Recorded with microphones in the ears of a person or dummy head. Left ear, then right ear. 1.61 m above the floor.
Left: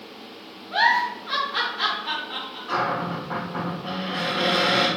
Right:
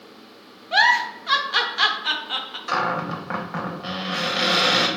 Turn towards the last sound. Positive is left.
turn(degrees=-60)  # may be behind; listen again after turning